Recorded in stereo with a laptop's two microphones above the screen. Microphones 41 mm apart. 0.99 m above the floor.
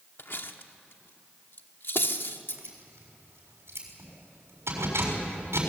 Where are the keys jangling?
75° right (ahead or behind), 6.5 m.